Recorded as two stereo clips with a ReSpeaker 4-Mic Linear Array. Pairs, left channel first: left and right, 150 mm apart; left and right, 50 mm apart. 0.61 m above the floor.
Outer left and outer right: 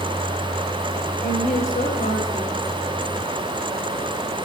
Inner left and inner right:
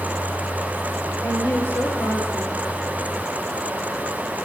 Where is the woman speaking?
55° left (ahead or behind), 6.5 m.